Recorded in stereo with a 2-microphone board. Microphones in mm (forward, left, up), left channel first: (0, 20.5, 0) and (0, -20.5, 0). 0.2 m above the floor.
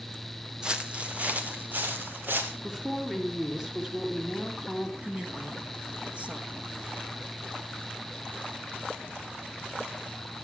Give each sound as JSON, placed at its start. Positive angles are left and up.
{"t": 0.6, "sound": "footsteps", "side_deg": -20, "distance_m": 1.6}
{"t": 2.6, "sound": "a woman speaking", "side_deg": -10, "distance_m": 3.5}
{"t": 5.0, "sound": "a woman speaking", "side_deg": -25, "distance_m": 3.0}